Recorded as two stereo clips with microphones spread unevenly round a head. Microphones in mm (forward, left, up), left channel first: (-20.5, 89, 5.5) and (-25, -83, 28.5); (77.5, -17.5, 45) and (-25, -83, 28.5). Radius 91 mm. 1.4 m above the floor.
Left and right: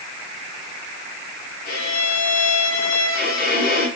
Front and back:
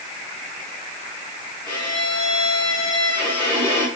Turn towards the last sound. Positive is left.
turn(degrees=125)